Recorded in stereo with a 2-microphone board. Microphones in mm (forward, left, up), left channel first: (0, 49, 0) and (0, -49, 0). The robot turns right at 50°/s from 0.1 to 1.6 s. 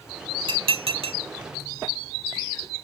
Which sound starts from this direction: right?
Dishes clattering, at 0.5 s.